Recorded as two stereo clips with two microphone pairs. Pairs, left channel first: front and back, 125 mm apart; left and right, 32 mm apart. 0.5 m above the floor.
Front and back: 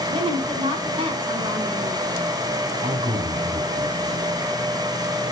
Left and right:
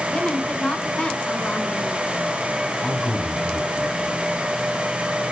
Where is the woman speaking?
135° left, 4.5 m.